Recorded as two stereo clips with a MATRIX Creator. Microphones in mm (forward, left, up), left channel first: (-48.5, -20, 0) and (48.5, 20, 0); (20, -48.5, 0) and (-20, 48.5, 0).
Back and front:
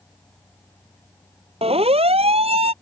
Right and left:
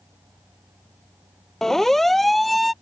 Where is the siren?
20° left; by 2.7 s 25° left.